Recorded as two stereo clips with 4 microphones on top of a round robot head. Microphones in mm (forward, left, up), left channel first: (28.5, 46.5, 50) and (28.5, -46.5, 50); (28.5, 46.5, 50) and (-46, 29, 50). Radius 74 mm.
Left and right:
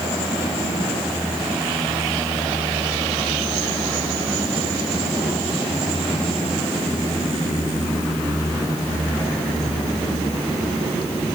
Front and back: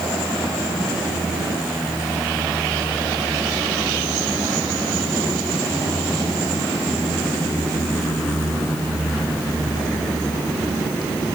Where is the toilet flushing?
No toilet flushing in this recording.